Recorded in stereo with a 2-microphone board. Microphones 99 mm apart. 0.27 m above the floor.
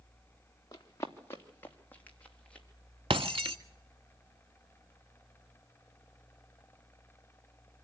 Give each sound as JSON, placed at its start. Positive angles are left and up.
{"t": 0.7, "sound": "running footsteps", "side_deg": 35, "distance_m": 2.5}
{"t": 3.1, "sound": "breaking glass", "side_deg": -70, "distance_m": 1.0}